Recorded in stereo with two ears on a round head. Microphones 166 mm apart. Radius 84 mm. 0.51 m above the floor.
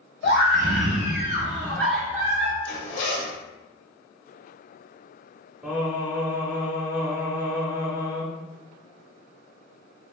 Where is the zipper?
75° left (ahead or behind), 1.0 m.